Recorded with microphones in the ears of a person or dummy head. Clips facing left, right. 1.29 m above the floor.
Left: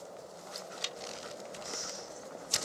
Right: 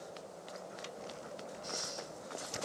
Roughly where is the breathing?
Right.